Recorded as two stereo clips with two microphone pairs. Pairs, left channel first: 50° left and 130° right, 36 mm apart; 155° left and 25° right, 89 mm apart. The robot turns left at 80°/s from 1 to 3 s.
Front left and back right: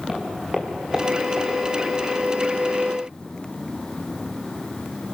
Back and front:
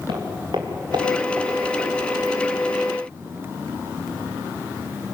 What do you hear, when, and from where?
0.1 s footsteps: 50° right, 4.5 m; by 1.9 s 140° right, 4 m